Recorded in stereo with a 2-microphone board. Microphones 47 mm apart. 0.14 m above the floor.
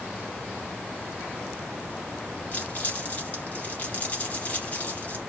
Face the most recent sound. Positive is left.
turn(degrees=40)  # may be behind; listen again after turning